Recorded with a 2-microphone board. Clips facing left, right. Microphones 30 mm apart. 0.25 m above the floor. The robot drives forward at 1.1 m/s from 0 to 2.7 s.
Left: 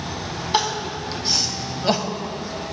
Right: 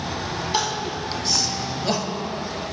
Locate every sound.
0.5 s crying: 20° left (ahead or behind), 1.7 m; by 2.2 s 25° left (ahead or behind), 1.2 m